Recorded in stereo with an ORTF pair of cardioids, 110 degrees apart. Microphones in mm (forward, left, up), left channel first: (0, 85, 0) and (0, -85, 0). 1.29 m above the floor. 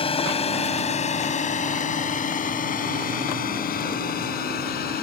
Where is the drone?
35° left; by 5.0 s 65° left.